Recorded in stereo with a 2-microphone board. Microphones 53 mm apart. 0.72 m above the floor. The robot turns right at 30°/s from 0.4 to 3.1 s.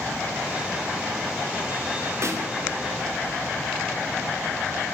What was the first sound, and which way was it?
A snare drum, 60° right (ahead or behind).